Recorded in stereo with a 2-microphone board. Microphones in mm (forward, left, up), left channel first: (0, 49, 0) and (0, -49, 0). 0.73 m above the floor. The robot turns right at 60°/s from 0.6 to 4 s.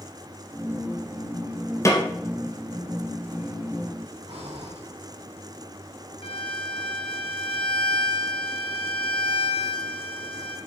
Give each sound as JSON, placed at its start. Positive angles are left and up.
{"t": 1.9, "sound": "a snare drum", "side_deg": 30, "distance_m": 1.6}
{"t": 4.3, "sound": "breathing", "side_deg": -80, "distance_m": 2.5}
{"t": 6.2, "sound": "a violin", "side_deg": 60, "distance_m": 0.9}